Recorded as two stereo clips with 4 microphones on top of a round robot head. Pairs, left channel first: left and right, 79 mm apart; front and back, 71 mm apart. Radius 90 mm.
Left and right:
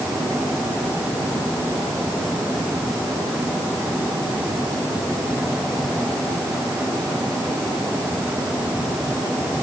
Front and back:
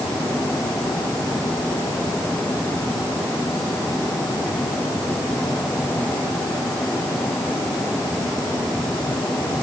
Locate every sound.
Only background noise.